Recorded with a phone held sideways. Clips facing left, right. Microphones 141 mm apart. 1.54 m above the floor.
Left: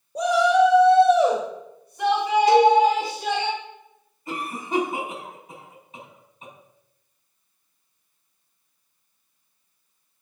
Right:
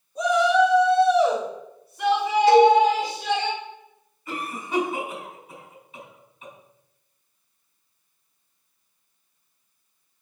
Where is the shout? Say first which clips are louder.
Left 1 dB; 80° left, 1.0 m; by 3.5 s 50° left (ahead or behind), 3 m.